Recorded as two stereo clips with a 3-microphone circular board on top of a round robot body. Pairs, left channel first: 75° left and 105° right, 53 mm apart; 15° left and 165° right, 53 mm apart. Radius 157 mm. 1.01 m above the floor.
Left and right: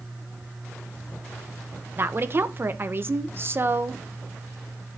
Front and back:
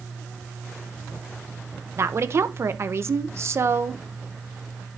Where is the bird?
I don't hear a bird.